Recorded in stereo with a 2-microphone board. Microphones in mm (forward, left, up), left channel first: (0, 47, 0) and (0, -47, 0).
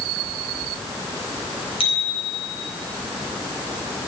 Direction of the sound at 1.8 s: 80° left.